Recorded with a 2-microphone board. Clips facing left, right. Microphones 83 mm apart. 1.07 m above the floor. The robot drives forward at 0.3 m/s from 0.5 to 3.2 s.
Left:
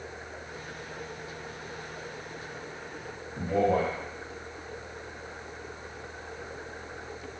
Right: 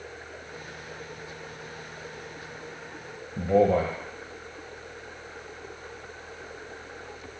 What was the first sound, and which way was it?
A man speaking, 65° right (ahead or behind).